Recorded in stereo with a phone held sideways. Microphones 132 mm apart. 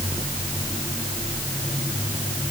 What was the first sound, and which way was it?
Only background noise.